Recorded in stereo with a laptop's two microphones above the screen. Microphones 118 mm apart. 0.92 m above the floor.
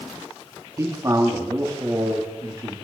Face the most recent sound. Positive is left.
turn(degrees=-30)  # may be behind; listen again after turning